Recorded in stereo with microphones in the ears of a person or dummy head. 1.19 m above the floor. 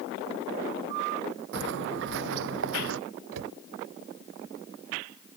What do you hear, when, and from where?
1.5 s footsteps: 70° right (ahead or behind); by 3.0 s 80° right
3.3 s a cupboard door: 80° right